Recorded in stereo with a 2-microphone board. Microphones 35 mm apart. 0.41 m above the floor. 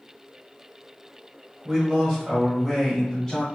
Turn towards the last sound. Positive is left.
turn(degrees=20)  # may be behind; listen again after turning